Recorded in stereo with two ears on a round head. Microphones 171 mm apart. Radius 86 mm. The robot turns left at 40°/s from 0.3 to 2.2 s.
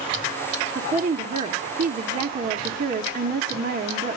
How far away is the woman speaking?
About 1.1 m.